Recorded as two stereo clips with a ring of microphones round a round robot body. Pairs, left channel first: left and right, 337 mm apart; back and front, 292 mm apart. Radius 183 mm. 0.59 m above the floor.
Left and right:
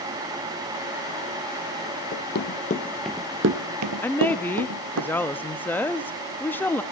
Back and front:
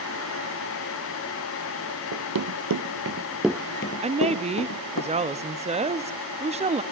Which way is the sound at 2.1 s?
30° left.